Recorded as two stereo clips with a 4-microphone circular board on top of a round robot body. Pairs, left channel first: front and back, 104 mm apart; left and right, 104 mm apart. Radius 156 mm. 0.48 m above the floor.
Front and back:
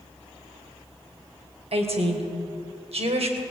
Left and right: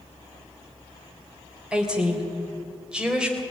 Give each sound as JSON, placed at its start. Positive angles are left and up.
{"t": 1.7, "sound": "a woman speaking", "azimuth_deg": -170, "distance_m": 3.5}